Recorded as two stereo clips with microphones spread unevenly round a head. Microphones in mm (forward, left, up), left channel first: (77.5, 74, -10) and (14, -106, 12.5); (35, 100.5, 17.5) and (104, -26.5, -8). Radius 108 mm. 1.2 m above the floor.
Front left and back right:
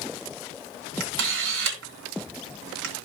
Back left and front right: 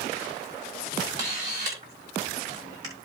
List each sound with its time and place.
1.0 s a camera shutter: 135° right, 3 m